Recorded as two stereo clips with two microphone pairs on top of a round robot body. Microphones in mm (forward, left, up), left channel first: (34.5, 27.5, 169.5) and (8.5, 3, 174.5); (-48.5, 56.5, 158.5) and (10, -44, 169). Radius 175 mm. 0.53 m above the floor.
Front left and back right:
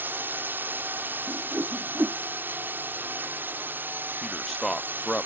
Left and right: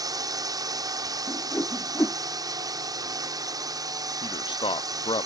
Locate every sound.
0.0 s a drone: 115° right
1.3 s a whoosh: 170° right
4.2 s a man speaking: 115° left